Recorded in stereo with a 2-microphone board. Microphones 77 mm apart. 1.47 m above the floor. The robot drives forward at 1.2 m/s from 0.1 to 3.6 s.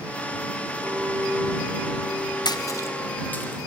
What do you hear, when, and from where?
0.8 s a clink: 50° right (ahead or behind), 2.5 m; by 3.5 s 25° right (ahead or behind), 5 m
2.5 s a splash: 65° left (ahead or behind), 0.6 m; by 3.6 s 20° left (ahead or behind), 1.6 m